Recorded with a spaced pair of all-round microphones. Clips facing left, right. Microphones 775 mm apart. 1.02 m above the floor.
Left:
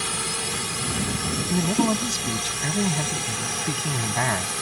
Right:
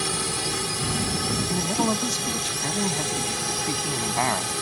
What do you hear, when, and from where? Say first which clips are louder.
0.0 s a drone: right 3 dB; 65° right (ahead or behind)
1.5 s a man speaking: left 5 dB; 45° left (ahead or behind)